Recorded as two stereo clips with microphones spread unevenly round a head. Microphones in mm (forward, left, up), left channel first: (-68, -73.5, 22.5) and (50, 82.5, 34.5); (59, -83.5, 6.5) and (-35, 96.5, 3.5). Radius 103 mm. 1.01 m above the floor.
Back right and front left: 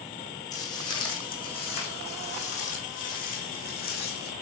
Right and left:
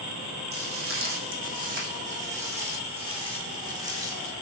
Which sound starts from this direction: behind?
Footsteps, at 0.5 s.